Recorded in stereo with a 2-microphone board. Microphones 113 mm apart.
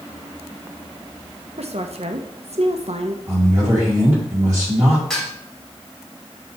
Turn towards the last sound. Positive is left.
turn(degrees=0)  # may be behind; listen again after turning